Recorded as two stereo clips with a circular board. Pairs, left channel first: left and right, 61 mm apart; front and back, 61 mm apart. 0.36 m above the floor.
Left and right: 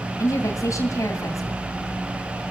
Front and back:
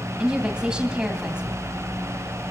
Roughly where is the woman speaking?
Left.